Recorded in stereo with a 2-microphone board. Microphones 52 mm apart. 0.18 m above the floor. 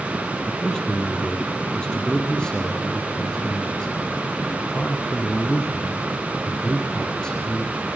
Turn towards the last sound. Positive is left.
turn(degrees=15)  # may be behind; listen again after turning